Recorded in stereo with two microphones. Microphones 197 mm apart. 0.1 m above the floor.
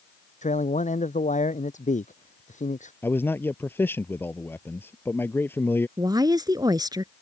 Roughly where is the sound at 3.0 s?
Centre.